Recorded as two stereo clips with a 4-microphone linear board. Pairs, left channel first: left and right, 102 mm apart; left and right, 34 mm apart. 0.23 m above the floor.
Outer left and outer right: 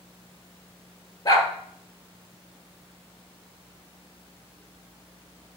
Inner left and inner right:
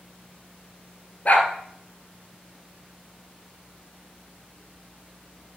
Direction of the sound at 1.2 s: 35° left (ahead or behind).